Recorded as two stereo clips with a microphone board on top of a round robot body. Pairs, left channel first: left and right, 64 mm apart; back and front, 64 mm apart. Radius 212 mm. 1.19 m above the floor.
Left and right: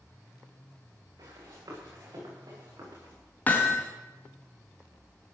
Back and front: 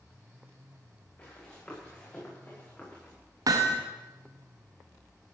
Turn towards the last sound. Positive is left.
turn(degrees=25)